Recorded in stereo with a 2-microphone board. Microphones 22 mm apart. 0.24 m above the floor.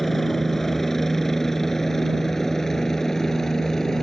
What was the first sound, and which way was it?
A helicopter, 15° left (ahead or behind).